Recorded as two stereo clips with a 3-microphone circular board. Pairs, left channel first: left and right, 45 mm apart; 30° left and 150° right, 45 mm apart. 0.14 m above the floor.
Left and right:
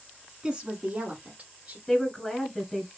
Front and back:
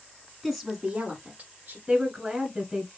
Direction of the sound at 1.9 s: 165° left.